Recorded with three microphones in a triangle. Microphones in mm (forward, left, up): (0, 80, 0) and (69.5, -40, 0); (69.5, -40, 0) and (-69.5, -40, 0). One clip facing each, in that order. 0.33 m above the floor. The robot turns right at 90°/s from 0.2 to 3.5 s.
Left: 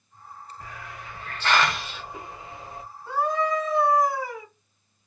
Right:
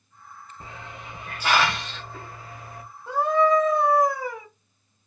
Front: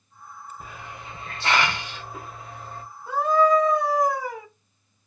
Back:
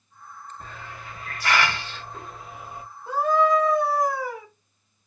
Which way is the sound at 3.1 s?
120° right.